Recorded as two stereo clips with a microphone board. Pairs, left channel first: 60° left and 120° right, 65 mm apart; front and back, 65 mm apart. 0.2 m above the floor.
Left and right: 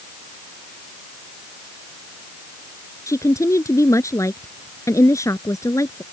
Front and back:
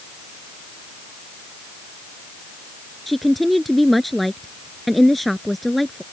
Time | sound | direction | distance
3.1 | a woman speaking | 90° left | ?